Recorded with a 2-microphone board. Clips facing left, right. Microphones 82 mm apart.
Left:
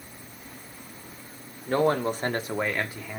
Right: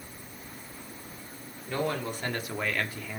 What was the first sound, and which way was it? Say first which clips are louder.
A man speaking: left 8 dB; 45° left (ahead or behind).